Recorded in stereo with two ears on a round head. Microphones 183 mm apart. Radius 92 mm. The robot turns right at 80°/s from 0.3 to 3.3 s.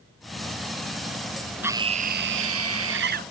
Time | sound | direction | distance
1.6 | a scream | 170° right | ?